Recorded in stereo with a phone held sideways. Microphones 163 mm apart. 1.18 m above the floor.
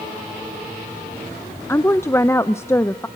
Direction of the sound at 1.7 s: 15° left (ahead or behind).